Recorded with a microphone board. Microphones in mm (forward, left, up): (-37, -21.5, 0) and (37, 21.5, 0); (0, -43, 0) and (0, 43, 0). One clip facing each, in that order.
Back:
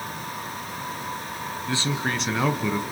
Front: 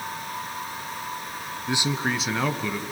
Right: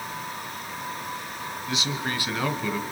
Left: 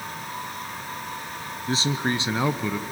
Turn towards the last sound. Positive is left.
turn(degrees=155)